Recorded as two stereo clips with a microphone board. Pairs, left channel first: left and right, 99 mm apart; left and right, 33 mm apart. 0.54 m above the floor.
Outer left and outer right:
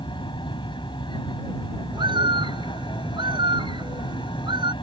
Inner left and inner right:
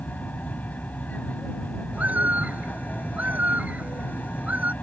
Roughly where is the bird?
Right.